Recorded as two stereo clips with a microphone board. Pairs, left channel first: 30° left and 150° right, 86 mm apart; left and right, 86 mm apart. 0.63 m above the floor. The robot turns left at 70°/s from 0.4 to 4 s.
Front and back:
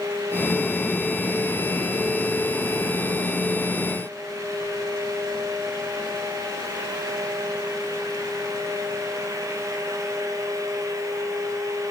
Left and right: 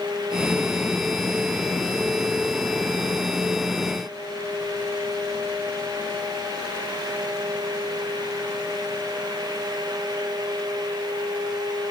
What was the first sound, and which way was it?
Only background noise.